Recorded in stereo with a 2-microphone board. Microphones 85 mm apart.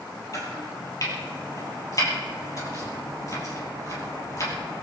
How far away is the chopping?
About 6 m.